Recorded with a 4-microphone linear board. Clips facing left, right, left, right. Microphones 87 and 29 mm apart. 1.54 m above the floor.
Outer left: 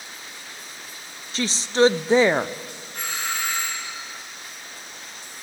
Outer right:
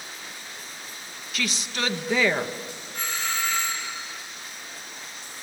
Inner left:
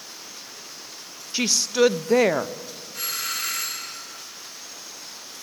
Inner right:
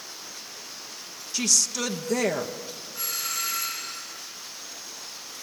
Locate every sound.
1.3 s a woman speaking: 30° left (ahead or behind), 0.7 m
2.9 s a doorbell: 65° left (ahead or behind), 5.5 m